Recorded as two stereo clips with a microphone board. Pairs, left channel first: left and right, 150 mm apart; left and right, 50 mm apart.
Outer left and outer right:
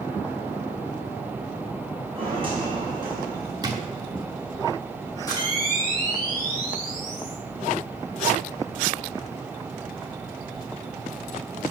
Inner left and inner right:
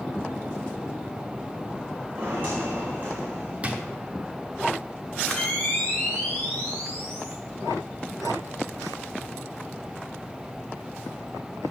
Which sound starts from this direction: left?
A camera shutter, at 5.3 s.